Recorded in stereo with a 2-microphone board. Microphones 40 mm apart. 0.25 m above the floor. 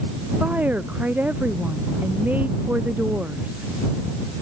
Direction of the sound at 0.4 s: 40° right (ahead or behind).